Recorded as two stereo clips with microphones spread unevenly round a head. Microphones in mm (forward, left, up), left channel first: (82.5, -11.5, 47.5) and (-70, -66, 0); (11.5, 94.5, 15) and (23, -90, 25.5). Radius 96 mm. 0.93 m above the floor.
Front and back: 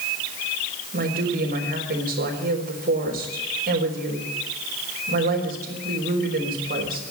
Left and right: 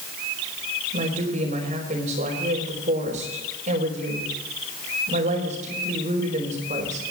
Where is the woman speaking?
135° right, 4 m.